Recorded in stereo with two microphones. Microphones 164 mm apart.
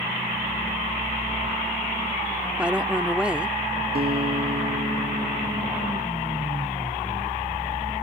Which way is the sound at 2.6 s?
5° right (ahead or behind).